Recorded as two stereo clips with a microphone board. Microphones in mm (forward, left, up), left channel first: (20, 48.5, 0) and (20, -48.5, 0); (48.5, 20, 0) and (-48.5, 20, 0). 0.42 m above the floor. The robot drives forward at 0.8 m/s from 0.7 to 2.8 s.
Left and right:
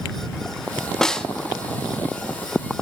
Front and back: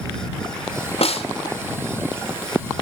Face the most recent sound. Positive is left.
turn(degrees=175)